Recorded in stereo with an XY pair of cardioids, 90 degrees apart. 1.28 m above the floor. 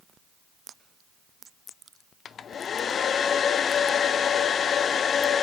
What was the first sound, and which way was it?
A hair dryer, 60° left.